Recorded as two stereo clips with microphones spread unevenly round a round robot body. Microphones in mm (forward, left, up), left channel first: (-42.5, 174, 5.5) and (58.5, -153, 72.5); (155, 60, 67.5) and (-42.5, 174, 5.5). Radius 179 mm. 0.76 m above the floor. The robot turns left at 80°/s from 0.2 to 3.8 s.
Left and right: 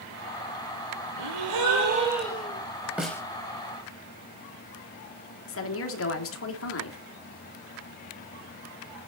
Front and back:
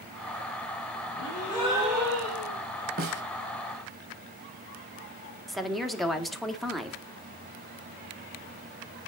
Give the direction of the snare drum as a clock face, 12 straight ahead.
5 o'clock.